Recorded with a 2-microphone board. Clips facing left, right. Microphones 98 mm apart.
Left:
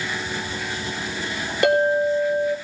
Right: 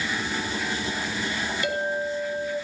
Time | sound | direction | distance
1.6 | a clink | 70° left (ahead or behind) | 5.5 m